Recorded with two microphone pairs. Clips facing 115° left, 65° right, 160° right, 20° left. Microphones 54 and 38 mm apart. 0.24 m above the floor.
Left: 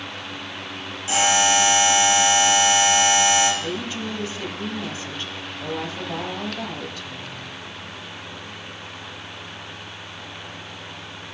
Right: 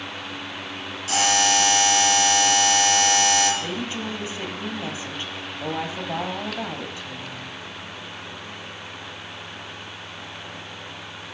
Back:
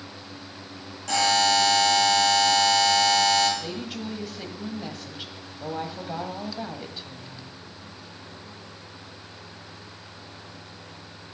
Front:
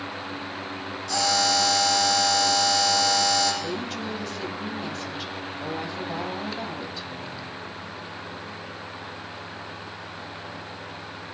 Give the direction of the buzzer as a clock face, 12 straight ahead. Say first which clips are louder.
Left 2 dB, back 3 dB; 6 o'clock.